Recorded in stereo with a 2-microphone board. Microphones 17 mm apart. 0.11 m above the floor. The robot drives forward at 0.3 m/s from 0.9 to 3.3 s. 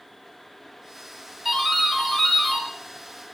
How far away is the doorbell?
About 2 m.